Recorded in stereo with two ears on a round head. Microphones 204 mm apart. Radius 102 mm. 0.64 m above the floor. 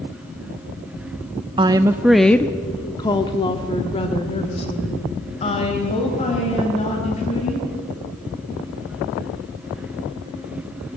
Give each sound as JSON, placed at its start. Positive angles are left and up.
{"t": 1.6, "sound": "a woman speaking", "side_deg": -20, "distance_m": 0.6}